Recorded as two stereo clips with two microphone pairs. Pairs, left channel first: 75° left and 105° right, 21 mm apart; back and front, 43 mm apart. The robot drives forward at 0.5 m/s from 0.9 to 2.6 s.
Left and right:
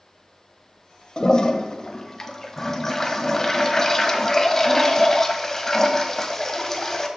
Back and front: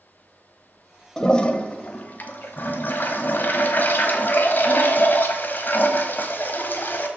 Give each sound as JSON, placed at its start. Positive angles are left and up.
{"t": 1.2, "sound": "a toilet flushing", "azimuth_deg": 105, "distance_m": 0.9}